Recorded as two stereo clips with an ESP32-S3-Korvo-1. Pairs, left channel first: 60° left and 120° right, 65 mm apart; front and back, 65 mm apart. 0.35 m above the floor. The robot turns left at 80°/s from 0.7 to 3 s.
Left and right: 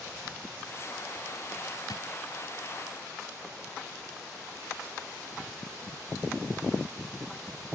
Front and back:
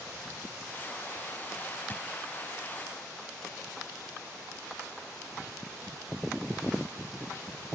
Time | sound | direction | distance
1.9 | a drawer | 60° left | 0.7 m